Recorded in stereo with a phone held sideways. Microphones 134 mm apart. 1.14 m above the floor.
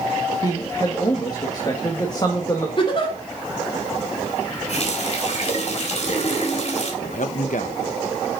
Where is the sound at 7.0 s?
70° left (ahead or behind), 1.2 m.